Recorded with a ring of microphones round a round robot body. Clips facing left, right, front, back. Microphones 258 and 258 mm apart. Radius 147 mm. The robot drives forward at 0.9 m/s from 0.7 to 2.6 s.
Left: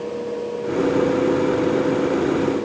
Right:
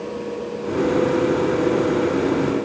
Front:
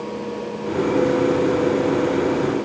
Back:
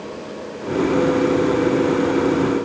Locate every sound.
Only background noise.